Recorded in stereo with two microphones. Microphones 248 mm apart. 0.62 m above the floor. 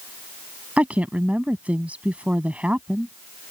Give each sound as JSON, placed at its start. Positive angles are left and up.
{"t": 0.8, "sound": "a woman speaking", "side_deg": -5}